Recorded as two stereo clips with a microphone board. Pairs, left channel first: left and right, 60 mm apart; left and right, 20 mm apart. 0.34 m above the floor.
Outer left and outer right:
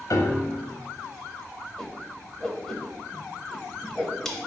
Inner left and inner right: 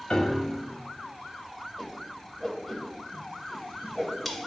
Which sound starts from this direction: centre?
A whoosh, at 1.8 s.